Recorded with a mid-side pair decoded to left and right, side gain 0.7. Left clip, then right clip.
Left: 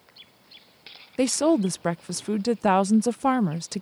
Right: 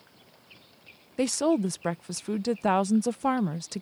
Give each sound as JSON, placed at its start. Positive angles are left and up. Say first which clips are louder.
{"t": 1.2, "sound": "a woman speaking", "louder": "left 4 dB", "azimuth_deg": 15}